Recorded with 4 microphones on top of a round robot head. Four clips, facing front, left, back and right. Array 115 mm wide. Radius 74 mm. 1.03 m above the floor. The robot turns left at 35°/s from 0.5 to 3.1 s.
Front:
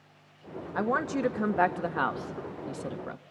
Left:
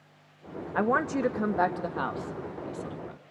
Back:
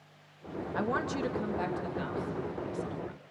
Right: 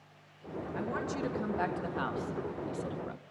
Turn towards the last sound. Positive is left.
turn(degrees=-10)